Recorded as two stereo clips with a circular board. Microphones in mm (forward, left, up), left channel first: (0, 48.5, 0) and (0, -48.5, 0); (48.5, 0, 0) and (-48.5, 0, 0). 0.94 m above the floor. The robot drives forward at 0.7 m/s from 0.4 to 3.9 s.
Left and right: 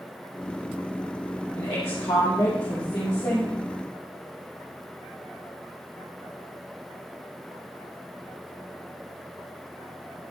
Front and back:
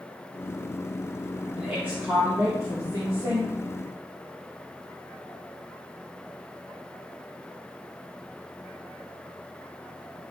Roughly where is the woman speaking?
Left.